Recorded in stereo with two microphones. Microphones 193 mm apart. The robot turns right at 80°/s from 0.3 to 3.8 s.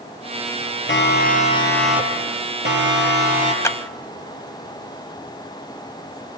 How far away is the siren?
About 4.5 m.